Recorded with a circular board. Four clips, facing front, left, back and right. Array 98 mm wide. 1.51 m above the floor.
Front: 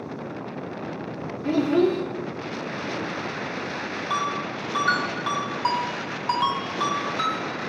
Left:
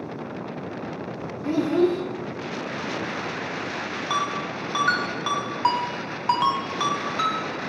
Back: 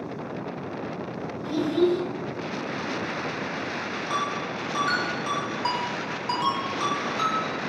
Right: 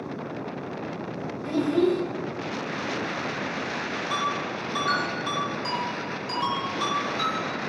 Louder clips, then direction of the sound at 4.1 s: Left 2 dB, front 2 dB; 75° left.